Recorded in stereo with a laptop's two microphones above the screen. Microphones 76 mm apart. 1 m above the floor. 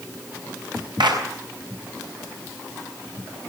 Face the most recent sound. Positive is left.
turn(degrees=-80)